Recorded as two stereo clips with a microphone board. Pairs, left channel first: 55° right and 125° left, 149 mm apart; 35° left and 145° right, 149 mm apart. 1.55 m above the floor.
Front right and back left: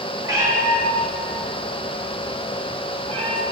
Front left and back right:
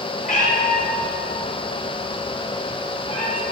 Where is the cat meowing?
60° left, 4 m; by 3.4 s 80° left, 2.5 m.